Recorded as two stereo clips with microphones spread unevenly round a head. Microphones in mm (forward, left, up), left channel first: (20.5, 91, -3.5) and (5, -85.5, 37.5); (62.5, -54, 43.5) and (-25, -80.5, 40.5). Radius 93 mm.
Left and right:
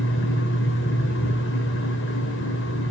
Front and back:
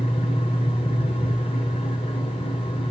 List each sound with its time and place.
0.0 s a fan: 65° left, 3 m